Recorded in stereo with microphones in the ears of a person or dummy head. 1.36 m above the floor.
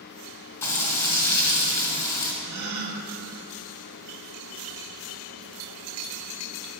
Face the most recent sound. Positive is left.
turn(degrees=-60)  # may be behind; listen again after turning